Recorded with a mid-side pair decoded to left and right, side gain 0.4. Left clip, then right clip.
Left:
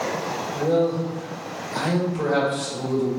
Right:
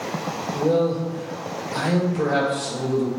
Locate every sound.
0.5 s a man speaking: 5° right, 1.7 m